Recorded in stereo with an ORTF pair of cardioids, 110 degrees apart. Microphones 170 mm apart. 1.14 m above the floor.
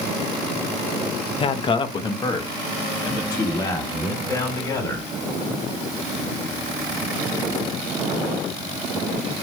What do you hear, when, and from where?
1.4 s a man speaking: 35° left, 0.8 m; by 5.1 s 20° left, 4 m